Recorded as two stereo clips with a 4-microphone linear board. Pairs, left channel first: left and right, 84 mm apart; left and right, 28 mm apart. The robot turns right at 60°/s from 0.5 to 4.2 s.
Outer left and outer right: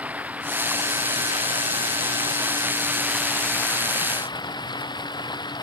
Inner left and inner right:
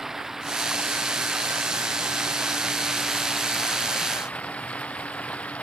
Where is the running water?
165° right; by 5.6 s 60° left.